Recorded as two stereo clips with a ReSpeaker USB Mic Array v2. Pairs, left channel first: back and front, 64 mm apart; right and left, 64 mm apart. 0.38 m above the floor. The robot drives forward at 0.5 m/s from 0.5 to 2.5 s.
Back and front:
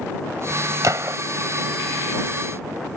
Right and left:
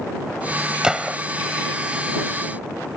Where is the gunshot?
15° left.